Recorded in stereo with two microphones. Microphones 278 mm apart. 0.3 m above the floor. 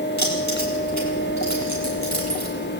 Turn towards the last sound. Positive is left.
turn(degrees=75)  # may be behind; listen again after turning